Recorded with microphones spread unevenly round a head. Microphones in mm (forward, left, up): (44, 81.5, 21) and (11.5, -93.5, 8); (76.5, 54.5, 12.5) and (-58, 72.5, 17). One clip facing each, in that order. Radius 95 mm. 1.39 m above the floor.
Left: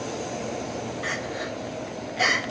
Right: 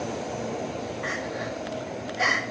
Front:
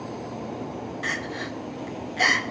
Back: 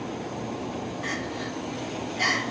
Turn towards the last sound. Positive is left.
turn(degrees=30)